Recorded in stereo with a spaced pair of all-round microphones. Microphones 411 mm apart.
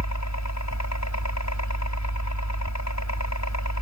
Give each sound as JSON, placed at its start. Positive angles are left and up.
{"t": 0.0, "sound": "a helicopter", "side_deg": 40}